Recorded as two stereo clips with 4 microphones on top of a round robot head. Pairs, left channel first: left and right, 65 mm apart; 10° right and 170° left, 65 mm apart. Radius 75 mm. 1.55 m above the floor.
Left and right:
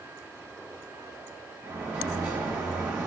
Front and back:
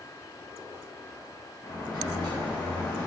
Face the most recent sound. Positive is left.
turn(degrees=-55)